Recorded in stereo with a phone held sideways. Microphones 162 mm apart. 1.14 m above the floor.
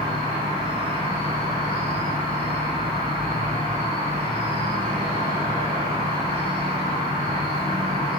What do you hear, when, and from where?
0.0 s an insect: 45° right (ahead or behind), 2 m